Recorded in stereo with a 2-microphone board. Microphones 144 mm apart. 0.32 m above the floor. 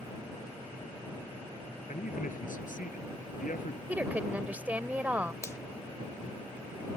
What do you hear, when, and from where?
1.9 s a man speaking: 75° left (ahead or behind)
3.9 s a woman speaking: 10° right (ahead or behind)
5.4 s a finger snap: 20° left (ahead or behind)